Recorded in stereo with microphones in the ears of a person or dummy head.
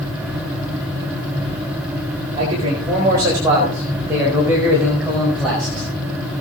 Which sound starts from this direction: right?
A man speaking, at 2.4 s.